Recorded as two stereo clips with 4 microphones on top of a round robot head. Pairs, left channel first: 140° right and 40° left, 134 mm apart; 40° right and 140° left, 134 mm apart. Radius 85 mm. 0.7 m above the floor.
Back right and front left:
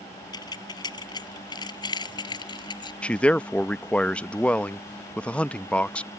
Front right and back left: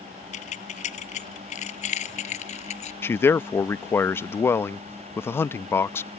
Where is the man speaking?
75° right.